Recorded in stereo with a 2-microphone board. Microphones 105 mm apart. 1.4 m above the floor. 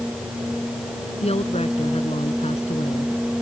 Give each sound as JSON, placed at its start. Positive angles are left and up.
{"t": 1.2, "sound": "a woman speaking", "side_deg": 70}